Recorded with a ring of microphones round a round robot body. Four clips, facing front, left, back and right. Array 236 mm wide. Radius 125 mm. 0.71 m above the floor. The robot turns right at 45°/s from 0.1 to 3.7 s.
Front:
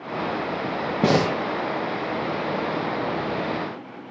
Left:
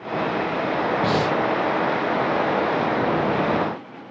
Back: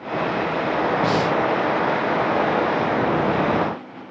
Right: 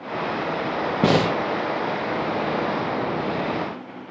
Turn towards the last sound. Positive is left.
turn(degrees=65)